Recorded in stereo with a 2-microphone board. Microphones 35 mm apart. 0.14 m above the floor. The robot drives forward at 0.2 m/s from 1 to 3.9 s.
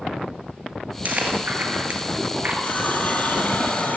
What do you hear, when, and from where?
1.1 s chewing: 50° right (ahead or behind), 1.4 m; by 2.5 s 45° right (ahead or behind), 1.6 m
2.6 s a running tap: 55° left (ahead or behind), 2 m; by 4.0 s 60° left (ahead or behind), 2 m